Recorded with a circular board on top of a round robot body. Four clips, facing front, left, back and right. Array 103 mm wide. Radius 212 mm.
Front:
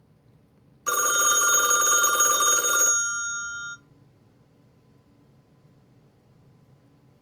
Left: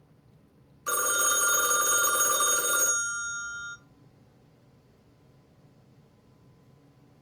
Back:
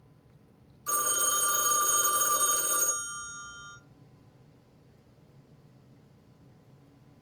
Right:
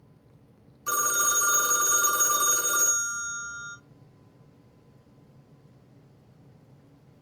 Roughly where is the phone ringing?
Ahead.